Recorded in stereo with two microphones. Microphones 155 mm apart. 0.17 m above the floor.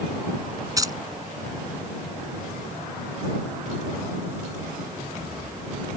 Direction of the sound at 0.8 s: 25° right (ahead or behind).